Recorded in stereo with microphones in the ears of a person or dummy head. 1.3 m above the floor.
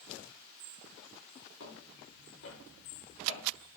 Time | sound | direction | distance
1.6 | footsteps | 80° left | 6.5 m